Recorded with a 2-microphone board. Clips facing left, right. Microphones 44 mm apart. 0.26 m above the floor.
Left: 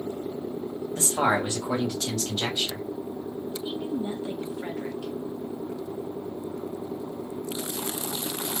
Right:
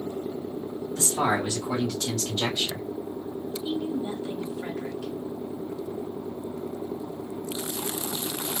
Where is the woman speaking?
15° left (ahead or behind), 1.1 m.